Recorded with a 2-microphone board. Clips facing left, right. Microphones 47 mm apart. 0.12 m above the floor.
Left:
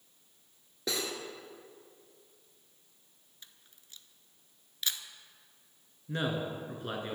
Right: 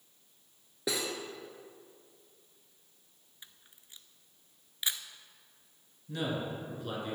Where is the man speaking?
35° left (ahead or behind), 1.7 m.